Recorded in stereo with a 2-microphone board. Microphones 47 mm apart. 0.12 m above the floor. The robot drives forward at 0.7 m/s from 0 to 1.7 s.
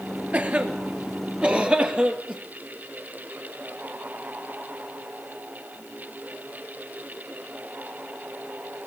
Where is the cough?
35° right (ahead or behind), 2.5 m; by 2.4 s 25° right (ahead or behind), 3 m.